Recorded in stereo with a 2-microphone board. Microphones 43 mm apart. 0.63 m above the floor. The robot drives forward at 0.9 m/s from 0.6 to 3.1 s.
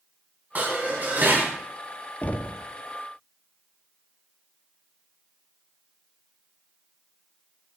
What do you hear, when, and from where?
0.6 s dishes clattering: 40° right (ahead or behind), 4 m; by 1.5 s 45° right (ahead or behind), 3 m
2.2 s knocking: 35° left (ahead or behind), 0.5 m; by 2.6 s 30° left (ahead or behind), 0.6 m